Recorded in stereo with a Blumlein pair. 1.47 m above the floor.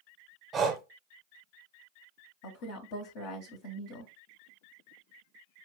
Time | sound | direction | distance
0.5 | breathing | 20° right | 1.0 m
2.4 | a woman speaking | 50° left | 1.3 m